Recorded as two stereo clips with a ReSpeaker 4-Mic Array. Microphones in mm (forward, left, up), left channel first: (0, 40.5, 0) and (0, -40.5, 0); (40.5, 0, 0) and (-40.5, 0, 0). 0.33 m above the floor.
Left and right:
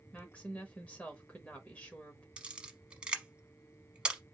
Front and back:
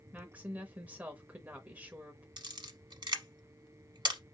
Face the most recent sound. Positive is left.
turn(degrees=-170)